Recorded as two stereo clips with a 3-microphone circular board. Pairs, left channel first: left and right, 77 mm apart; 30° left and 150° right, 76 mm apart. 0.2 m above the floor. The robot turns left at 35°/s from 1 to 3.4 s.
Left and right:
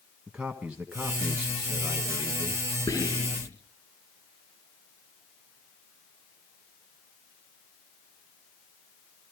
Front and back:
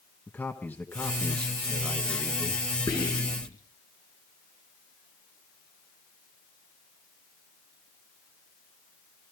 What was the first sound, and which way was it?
A man speaking, 20° right.